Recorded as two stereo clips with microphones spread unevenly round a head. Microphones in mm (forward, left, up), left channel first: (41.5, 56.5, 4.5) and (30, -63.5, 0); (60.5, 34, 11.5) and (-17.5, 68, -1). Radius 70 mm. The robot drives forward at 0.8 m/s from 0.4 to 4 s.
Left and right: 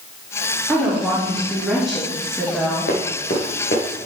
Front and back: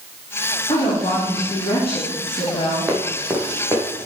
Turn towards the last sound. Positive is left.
turn(degrees=95)